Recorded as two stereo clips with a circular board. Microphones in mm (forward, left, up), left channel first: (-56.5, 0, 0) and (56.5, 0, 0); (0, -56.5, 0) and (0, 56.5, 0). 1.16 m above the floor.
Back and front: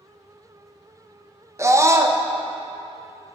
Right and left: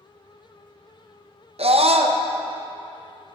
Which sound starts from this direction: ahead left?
A scream, at 1.6 s.